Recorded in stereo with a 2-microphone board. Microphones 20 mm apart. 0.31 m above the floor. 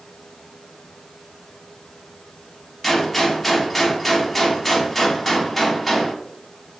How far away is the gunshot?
About 0.5 m.